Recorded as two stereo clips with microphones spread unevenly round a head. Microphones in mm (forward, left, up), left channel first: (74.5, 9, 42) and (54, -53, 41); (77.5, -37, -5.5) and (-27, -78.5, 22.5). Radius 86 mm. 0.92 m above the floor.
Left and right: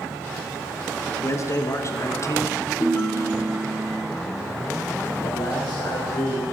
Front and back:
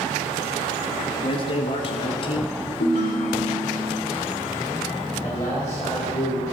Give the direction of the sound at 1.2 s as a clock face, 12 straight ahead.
11 o'clock.